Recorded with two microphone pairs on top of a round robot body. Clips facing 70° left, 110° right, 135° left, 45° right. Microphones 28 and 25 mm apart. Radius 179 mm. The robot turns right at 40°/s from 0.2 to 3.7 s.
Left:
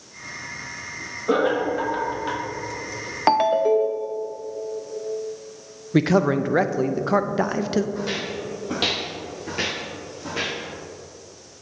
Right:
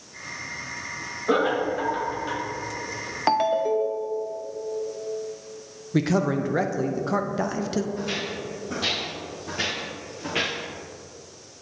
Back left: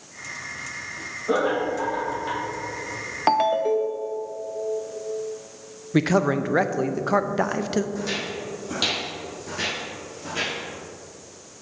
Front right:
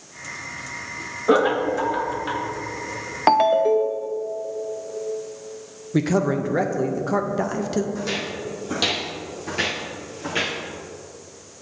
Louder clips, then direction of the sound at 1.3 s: Left 2 dB, front right 4 dB; 25° right.